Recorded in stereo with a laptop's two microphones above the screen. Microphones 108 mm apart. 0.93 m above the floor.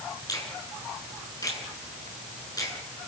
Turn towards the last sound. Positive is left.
turn(degrees=35)  # may be behind; listen again after turning